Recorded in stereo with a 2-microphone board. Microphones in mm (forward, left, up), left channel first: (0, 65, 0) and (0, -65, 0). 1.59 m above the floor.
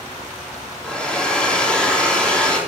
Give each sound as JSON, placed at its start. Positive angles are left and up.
{"t": 0.8, "sound": "a hair dryer", "side_deg": 10, "distance_m": 3.0}